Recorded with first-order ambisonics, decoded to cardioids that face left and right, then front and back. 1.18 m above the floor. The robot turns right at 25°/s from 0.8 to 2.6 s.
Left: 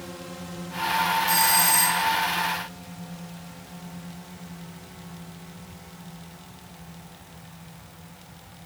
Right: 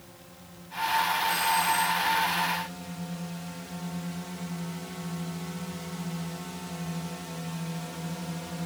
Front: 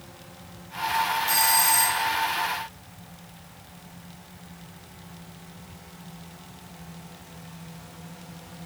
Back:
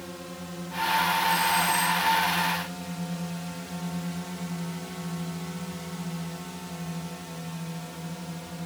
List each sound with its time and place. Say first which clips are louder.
0.0 s a drone: left 12 dB, back 7 dB; 130° left; by 8.7 s 115° right
1.3 s a doorbell: left 4 dB, front 1 dB; 40° left; by 2.1 s 60° left